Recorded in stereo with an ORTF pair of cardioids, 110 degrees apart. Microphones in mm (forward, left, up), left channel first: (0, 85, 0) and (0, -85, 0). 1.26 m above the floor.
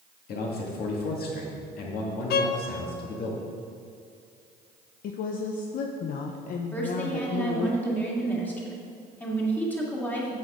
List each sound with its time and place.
0.3 s a man speaking: 65° left, 2 m
2.3 s a violin: 70° left, 0.8 m
5.0 s a woman speaking: 55° left, 0.6 m
6.7 s a woman speaking: 10° left, 2 m